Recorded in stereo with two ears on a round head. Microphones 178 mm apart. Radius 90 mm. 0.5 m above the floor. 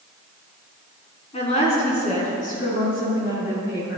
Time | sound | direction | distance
1.3 | a woman speaking | 30° left (ahead or behind) | 4 m